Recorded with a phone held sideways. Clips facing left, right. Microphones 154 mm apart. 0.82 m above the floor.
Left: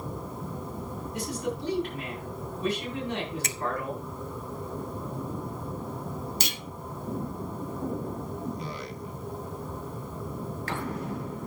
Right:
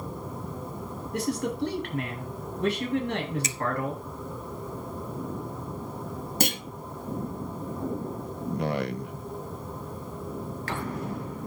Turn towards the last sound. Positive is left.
turn(degrees=-65)  # may be behind; listen again after turning